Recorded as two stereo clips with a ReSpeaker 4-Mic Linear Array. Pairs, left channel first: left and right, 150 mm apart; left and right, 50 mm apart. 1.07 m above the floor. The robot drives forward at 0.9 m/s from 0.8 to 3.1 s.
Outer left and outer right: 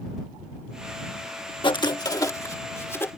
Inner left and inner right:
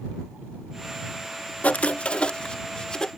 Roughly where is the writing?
Left.